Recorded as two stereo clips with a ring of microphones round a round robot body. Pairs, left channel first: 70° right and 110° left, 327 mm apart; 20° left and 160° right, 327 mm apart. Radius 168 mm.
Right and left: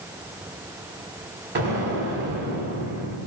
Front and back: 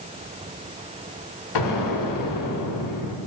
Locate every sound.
1.6 s an explosion: 55° left, 1.7 m